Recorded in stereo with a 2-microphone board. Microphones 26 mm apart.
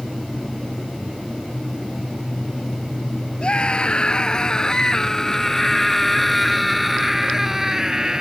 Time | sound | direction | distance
3.4 | a scream | 40° left (ahead or behind) | ?